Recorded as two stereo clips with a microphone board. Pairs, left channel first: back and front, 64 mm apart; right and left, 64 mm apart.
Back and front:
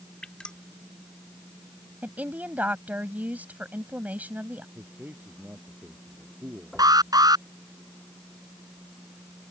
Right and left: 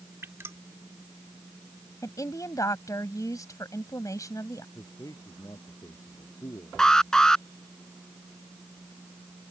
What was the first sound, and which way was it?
Dripping, 110° left.